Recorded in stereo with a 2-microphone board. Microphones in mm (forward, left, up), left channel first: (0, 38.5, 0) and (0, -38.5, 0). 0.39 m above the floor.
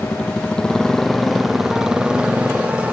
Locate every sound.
0.0 s a motorcycle: 20° left (ahead or behind); by 2.9 s 20° right (ahead or behind)